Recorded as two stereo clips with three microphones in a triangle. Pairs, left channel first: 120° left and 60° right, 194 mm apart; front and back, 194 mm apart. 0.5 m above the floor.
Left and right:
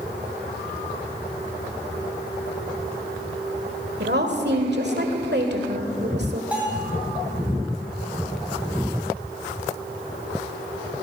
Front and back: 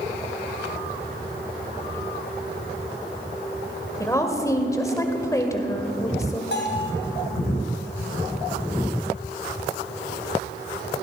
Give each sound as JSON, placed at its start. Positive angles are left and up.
{"t": 4.0, "sound": "a woman speaking", "azimuth_deg": -70, "distance_m": 1.6}
{"t": 6.5, "sound": "a bell", "azimuth_deg": 25, "distance_m": 3.0}